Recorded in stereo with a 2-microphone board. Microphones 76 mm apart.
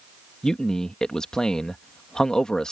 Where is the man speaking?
10° left (ahead or behind).